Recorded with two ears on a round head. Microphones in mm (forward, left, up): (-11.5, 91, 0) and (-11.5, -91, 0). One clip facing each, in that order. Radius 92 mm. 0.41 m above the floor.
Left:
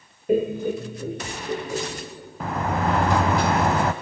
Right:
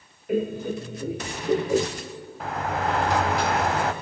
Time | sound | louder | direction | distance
0.3 | laughter | left 4 dB | 25° left (ahead or behind) | 1.5 m
2.4 | a sliding door | left 3 dB | 80° left | 0.9 m